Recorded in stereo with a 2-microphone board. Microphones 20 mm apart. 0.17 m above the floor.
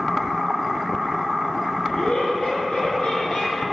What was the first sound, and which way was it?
Laughter, 75° left (ahead or behind).